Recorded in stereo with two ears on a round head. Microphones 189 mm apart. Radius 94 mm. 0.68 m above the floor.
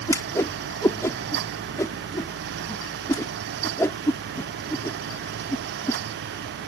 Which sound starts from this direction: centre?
A whoosh, at 0.1 s.